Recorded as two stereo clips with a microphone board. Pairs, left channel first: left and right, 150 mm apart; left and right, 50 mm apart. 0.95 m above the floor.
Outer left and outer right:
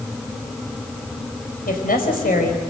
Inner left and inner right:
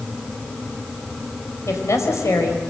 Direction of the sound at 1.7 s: 80° left.